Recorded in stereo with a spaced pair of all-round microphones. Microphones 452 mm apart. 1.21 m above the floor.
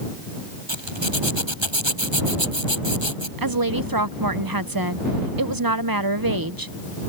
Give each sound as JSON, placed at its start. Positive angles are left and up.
{"t": 0.7, "sound": "a zipper", "side_deg": -85}
{"t": 3.4, "sound": "a woman speaking", "side_deg": -50}